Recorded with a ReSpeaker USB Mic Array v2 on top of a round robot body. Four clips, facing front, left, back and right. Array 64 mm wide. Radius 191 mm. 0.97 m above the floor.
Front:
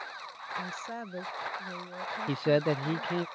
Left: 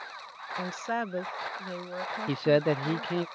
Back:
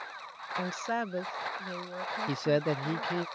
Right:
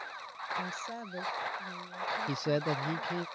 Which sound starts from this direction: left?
A man speaking, at 2.3 s.